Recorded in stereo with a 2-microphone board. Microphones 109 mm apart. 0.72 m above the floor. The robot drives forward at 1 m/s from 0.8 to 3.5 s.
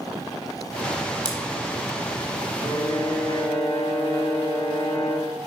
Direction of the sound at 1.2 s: 40° right (ahead or behind).